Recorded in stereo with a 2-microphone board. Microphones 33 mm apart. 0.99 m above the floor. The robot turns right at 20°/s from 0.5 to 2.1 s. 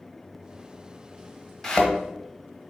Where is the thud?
15° left (ahead or behind), 1.8 m; by 1.9 s 20° left (ahead or behind), 1.8 m.